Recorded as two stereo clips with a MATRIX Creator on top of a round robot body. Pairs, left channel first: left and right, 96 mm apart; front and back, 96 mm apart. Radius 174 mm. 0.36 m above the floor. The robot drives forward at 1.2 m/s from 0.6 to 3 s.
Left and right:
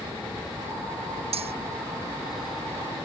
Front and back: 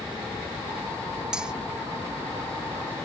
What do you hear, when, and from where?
1.3 s cutlery clinking: 95° right; by 1.5 s 100° right